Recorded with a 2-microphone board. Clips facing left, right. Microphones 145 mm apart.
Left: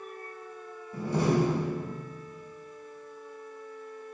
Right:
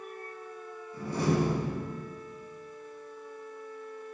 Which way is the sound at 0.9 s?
80° left.